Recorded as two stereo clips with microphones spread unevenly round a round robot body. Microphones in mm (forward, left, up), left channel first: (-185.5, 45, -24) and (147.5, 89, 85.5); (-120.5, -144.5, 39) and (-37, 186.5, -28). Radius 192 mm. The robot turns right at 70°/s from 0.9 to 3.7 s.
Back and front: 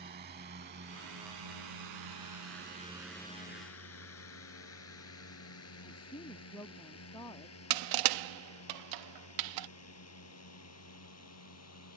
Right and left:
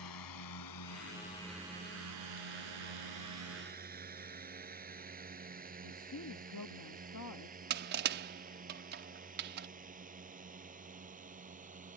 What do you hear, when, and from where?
0.0 s a drone: 60° right; by 12.0 s 145° left
5.8 s a woman speaking: 120° right
7.7 s crushing: 35° left